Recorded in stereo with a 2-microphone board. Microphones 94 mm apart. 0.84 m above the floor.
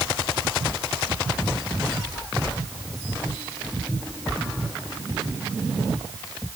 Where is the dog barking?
No dog barking in this recording.